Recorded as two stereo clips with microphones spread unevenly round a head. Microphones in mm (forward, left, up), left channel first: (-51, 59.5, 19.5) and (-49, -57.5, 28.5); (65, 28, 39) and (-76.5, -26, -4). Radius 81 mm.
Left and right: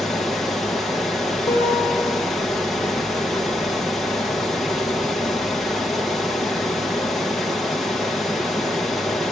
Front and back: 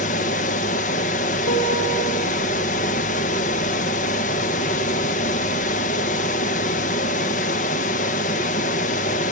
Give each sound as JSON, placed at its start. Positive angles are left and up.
{"t": 0.0, "sound": "running water", "azimuth_deg": 0, "distance_m": 0.8}
{"t": 1.5, "sound": "a guitar", "azimuth_deg": 20, "distance_m": 6.0}